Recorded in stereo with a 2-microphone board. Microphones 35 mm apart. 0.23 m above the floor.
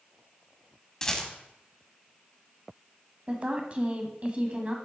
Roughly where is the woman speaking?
Right.